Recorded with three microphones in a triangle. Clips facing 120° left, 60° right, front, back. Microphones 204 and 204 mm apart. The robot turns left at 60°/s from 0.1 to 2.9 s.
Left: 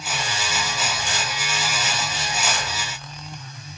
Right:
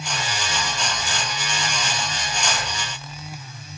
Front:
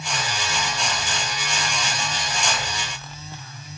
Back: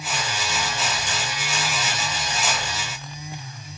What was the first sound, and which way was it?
Only background noise.